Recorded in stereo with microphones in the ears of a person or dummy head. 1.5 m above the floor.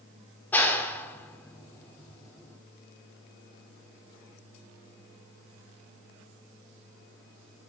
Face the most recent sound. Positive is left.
turn(degrees=10)  # may be behind; listen again after turning